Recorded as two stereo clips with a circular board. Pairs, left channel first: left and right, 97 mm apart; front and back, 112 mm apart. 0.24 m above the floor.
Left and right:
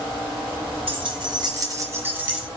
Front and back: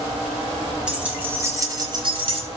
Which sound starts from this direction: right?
Keys jangling, at 0.9 s.